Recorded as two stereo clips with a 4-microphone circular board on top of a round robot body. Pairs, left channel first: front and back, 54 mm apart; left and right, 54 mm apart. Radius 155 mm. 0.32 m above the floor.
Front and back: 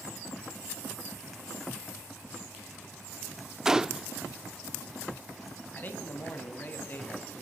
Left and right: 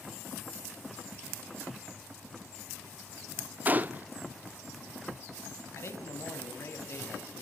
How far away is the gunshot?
About 1.0 m.